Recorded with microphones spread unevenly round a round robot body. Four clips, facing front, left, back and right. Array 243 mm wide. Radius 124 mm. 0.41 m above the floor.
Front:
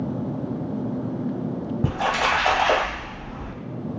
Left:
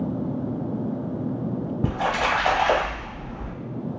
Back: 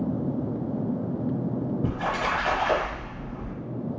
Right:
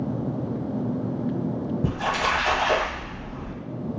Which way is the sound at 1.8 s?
55° left.